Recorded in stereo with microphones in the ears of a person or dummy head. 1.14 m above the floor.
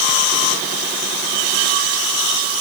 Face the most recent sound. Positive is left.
No sound to turn to.